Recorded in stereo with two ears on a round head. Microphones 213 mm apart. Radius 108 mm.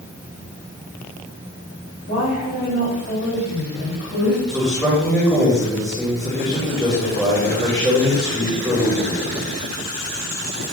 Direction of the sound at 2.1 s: 45° left (ahead or behind).